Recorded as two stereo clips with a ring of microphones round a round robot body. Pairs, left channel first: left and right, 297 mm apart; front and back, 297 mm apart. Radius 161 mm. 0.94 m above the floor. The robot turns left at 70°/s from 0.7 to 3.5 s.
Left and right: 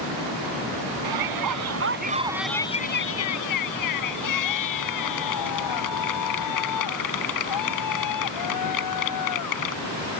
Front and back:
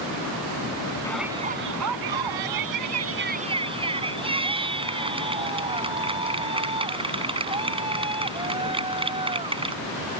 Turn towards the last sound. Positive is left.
turn(degrees=105)